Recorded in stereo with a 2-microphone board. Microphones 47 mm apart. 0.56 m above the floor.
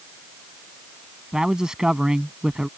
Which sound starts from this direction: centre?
A man speaking, at 1.3 s.